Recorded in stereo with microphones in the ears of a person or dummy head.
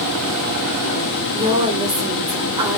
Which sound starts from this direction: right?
A woman speaking, at 1.3 s.